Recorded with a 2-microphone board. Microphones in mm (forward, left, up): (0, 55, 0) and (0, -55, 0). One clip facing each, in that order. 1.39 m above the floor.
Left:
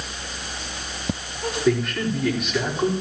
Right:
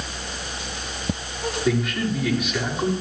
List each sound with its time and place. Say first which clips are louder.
1.6 s a man speaking: left 2 dB; 5° right (ahead or behind), 4.5 m